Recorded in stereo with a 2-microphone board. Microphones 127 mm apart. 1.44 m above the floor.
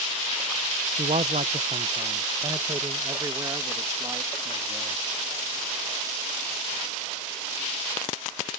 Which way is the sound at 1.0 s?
75° right (ahead or behind).